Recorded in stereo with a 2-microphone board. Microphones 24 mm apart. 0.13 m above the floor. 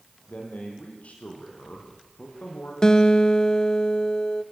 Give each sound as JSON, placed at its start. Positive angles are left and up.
{"t": 0.3, "sound": "a man speaking", "side_deg": 75, "distance_m": 6.0}
{"t": 2.8, "sound": "a guitar", "side_deg": 30, "distance_m": 0.6}